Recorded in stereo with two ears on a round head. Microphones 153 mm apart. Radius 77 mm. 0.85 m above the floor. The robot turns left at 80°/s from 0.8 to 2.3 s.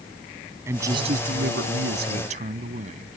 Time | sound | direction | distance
0.7 | a man speaking | 15° right | ?